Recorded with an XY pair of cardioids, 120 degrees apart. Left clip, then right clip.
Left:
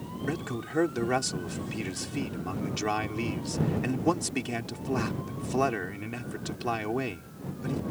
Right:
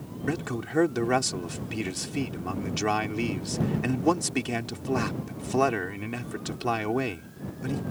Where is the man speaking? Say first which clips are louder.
Right 3 dB; 20° right.